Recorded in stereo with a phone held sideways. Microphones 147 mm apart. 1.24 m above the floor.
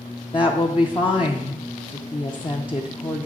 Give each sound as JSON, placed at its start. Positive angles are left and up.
{"t": 0.3, "sound": "a woman speaking", "side_deg": 35, "distance_m": 0.6}